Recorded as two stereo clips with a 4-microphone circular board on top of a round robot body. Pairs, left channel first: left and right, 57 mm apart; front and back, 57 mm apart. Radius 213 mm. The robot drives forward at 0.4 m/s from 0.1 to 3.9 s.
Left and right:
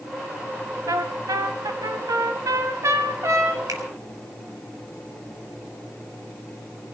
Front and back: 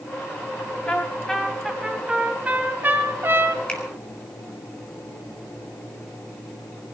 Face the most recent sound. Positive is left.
turn(degrees=-75)